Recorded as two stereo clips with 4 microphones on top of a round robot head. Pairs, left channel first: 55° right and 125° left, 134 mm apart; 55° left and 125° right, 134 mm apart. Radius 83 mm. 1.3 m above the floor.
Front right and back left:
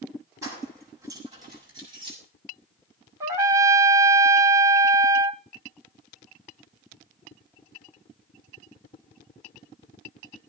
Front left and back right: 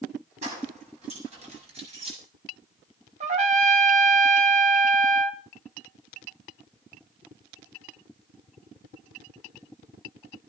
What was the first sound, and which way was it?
Keys jangling, 165° right.